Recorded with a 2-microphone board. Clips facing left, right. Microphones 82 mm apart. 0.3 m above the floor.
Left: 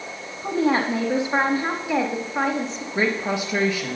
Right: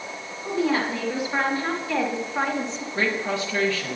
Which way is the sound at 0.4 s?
45° left (ahead or behind).